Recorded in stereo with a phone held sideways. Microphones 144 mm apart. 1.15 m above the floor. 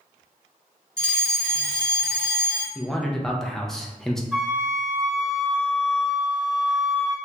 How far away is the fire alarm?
About 1.4 m.